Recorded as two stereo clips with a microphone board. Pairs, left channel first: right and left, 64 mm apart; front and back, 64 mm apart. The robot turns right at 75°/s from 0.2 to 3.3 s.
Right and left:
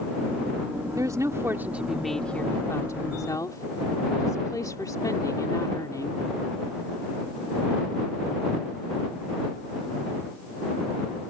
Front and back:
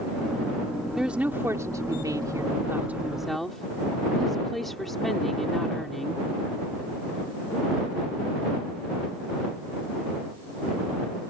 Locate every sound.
1.0 s a woman speaking: 95° left; by 6.2 s 90° right